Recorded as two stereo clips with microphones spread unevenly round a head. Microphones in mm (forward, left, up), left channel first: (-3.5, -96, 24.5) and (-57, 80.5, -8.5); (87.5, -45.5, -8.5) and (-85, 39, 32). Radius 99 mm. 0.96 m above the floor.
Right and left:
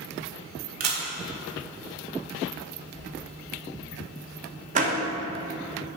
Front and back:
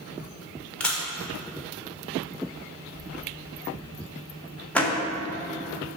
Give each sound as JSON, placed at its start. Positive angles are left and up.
{"t": 0.8, "sound": "a camera shutter", "azimuth_deg": 60, "distance_m": 1.4}
{"t": 2.9, "sound": "whispering", "azimuth_deg": -90, "distance_m": 2.5}
{"t": 4.8, "sound": "a door slam", "azimuth_deg": 55, "distance_m": 1.2}